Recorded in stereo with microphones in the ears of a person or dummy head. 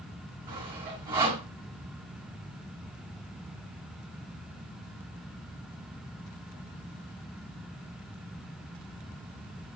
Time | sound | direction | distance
0.5 | sawing | 30° right (ahead or behind) | 2.5 m